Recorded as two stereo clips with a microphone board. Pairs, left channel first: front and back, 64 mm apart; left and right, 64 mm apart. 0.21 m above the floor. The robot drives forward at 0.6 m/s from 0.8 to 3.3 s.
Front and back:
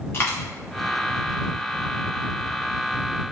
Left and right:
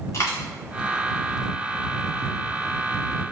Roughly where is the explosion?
I don't hear an explosion.